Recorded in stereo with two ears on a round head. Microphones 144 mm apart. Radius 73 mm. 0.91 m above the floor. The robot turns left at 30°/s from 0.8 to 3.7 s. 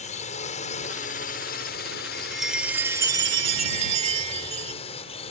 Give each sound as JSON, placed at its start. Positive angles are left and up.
{"t": 0.0, "sound": "a drone", "azimuth_deg": 125}
{"t": 2.1, "sound": "a chime", "azimuth_deg": 5}